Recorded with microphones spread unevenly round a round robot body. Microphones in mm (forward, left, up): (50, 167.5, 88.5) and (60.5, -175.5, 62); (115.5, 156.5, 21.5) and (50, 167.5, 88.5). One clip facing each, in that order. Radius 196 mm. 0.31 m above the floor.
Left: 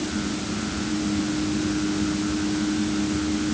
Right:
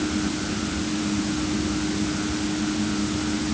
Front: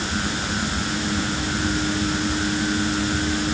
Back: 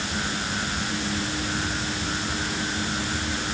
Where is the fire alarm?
I don't hear a fire alarm.